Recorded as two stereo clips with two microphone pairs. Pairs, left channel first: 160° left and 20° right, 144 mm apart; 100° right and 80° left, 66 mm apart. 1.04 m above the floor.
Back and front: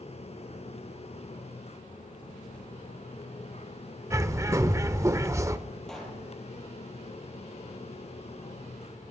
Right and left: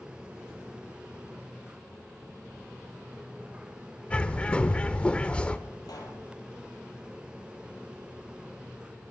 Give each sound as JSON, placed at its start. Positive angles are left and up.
{"t": 4.1, "sound": "a bird", "azimuth_deg": -65, "distance_m": 0.7}
{"t": 5.9, "sound": "a pop", "azimuth_deg": -115, "distance_m": 5.0}